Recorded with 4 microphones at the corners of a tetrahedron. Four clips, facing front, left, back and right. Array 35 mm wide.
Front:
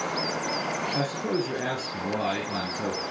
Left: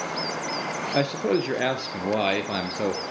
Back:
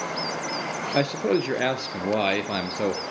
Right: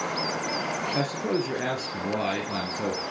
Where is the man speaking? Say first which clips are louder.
Left 6 dB, back 8 dB; 140° left, 3 m.